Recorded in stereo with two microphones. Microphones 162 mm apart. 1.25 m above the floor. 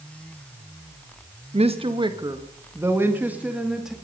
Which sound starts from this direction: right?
A woman speaking, at 1.5 s.